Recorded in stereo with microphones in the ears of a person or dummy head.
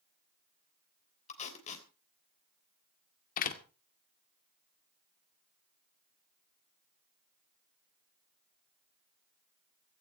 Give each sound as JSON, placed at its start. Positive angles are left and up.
{"t": 1.3, "sound": "tape being pulled", "side_deg": 45, "distance_m": 3.5}
{"t": 3.4, "sound": "a door slam", "side_deg": 50, "distance_m": 1.9}